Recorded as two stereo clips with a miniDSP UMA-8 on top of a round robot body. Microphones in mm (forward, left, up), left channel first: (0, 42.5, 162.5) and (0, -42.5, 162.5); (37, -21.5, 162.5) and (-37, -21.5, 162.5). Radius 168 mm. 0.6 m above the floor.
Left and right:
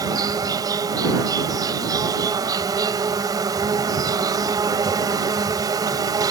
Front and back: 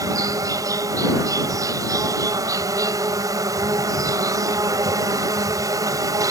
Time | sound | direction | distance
0.0 | an insect | 135° right | ?